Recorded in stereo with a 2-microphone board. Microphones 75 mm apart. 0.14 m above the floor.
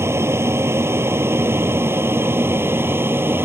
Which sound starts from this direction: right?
An aircraft, at 0.0 s.